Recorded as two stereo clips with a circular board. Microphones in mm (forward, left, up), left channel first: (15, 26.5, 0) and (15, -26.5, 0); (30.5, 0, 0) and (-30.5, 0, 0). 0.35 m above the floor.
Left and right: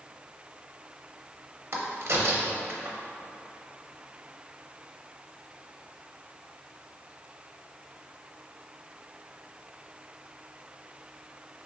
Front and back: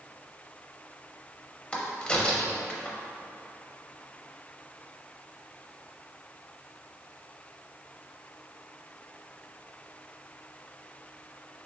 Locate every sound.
1.7 s a crack: 70° right, 0.6 m